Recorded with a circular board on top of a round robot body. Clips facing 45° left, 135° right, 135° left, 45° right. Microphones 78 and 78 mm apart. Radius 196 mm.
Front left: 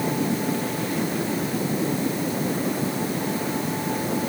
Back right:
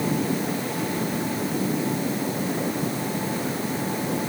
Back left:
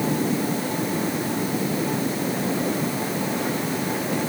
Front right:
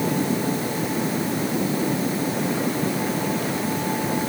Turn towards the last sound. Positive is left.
No sound to turn to.